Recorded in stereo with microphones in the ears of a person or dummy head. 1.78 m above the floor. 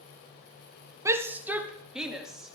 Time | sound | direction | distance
1.1 | a shout | 15° right (ahead or behind) | 1.6 m